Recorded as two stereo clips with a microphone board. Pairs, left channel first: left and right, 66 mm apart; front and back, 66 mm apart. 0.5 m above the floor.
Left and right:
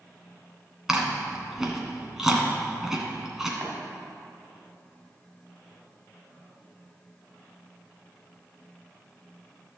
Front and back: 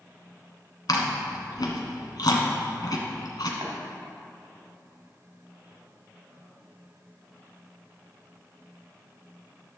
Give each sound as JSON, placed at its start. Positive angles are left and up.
{"t": 0.9, "sound": "chewing", "azimuth_deg": -10, "distance_m": 1.5}
{"t": 3.6, "sound": "tapping", "azimuth_deg": -145, "distance_m": 2.0}